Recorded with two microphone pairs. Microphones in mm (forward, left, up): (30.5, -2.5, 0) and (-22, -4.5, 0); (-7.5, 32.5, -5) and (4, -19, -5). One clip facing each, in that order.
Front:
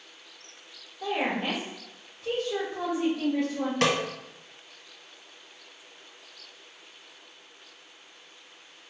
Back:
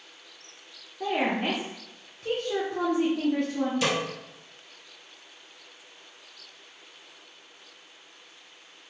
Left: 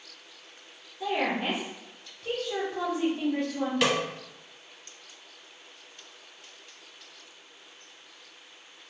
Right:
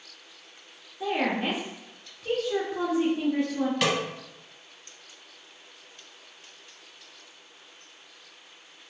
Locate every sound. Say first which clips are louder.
1.0 s a woman speaking: back 2 dB, right 1 dB; 155° right, 0.8 m
3.8 s a snare drum: front 5 dB, left 2 dB; 15° left, 0.7 m